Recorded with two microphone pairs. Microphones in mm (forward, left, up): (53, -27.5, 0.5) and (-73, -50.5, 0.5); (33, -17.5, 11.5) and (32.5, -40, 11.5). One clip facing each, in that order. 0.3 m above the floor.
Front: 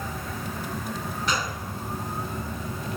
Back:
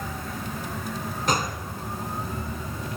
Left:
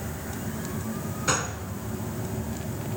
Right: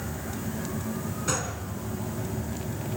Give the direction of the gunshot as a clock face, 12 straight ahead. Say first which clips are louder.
Back 4 dB, left 4 dB; 7 o'clock.